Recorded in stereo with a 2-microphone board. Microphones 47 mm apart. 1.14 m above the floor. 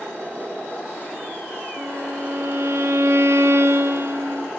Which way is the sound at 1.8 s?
75° right (ahead or behind).